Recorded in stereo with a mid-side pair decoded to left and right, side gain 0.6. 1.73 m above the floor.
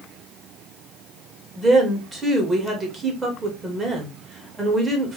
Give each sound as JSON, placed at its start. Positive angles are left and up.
{"t": 1.6, "sound": "a woman speaking", "azimuth_deg": -15, "distance_m": 2.0}